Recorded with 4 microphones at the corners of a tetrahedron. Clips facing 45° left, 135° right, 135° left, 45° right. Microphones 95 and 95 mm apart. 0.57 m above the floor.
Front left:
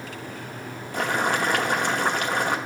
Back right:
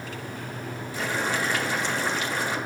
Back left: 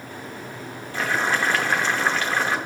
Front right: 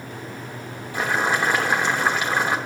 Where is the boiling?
25° left, 0.7 m.